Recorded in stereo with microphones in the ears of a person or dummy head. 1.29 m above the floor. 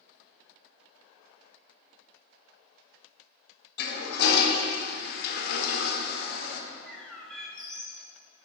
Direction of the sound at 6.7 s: Centre (ahead or behind).